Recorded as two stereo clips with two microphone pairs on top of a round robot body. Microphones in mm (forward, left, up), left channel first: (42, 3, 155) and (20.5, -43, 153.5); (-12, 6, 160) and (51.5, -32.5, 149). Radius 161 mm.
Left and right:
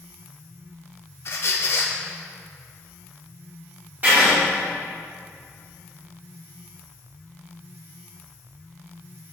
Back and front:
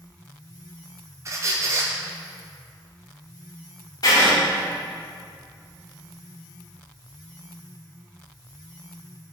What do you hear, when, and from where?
1.2 s a squeak: 25° left, 0.7 m
4.0 s writing: 165° right, 3 m